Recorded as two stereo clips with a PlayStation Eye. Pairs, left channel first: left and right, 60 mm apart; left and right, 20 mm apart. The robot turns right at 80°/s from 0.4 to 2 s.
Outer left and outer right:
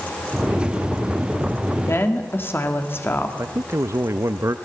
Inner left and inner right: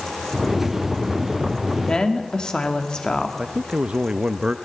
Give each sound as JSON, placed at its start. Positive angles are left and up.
{"t": 1.8, "sound": "a woman speaking", "side_deg": 55, "distance_m": 2.5}
{"t": 3.4, "sound": "a man speaking", "side_deg": -55, "distance_m": 0.6}